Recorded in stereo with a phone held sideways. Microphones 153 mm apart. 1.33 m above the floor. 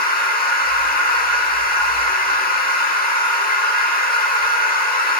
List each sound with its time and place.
0.0 s a machine running: 75° left (ahead or behind), 1.1 m